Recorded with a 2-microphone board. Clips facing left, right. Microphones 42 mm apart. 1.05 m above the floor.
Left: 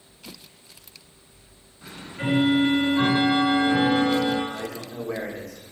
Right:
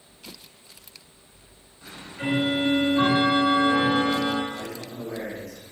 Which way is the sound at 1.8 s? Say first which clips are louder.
Left 1 dB; 15° left (ahead or behind).